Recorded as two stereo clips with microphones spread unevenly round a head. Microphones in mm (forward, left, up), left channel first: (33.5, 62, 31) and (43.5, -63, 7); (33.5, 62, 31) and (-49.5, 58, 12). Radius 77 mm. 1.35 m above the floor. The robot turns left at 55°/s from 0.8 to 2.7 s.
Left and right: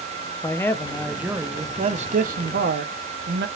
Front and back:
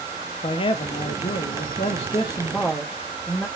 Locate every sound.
0.4 s a man speaking: 20° left, 0.5 m; by 3.5 s 80° right, 0.5 m